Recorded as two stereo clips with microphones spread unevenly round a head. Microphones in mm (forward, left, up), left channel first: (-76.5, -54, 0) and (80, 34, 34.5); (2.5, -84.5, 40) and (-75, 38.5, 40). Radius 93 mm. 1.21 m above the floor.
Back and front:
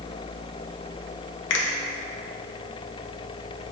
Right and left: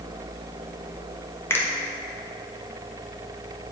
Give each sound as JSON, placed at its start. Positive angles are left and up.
{"t": 1.5, "sound": "a finger snap", "azimuth_deg": -130, "distance_m": 1.0}